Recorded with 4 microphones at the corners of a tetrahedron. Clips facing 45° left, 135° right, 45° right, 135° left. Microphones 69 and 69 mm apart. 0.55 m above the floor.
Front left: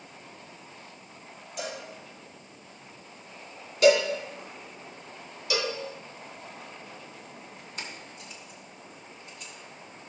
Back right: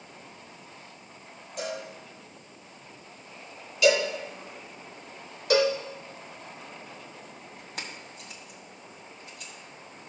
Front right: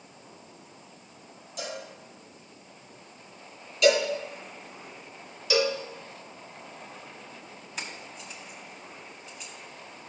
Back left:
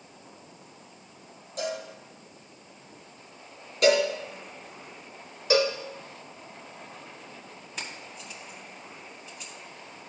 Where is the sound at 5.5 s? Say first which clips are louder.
Back right 8 dB, back left 2 dB; 175° right, 1.1 m.